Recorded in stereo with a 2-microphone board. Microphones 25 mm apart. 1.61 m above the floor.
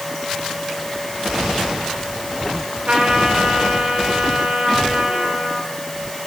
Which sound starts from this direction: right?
A trumpet, at 2.9 s.